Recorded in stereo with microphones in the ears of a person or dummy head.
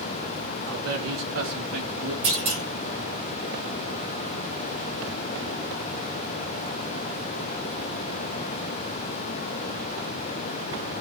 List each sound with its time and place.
0.7 s a man speaking: 75° right (ahead or behind), 1.7 m; by 2.1 s 55° right (ahead or behind), 2 m
2.2 s a clunk: 30° right (ahead or behind), 2 m